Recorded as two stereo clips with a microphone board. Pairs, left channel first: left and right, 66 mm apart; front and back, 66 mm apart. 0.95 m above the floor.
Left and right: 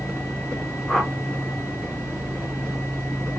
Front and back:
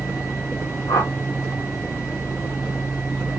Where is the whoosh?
5° left, 0.9 m.